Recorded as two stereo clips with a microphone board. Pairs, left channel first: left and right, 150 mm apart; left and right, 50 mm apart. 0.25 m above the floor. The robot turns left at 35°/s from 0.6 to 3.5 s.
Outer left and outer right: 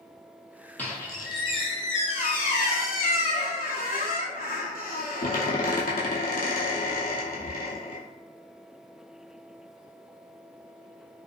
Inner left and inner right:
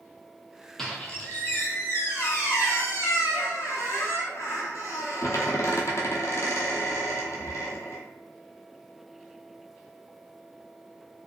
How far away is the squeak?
About 0.7 m.